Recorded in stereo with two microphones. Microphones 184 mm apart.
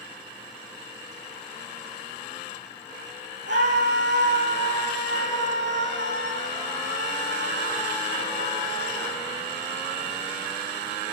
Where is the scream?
80° right, 7.5 m.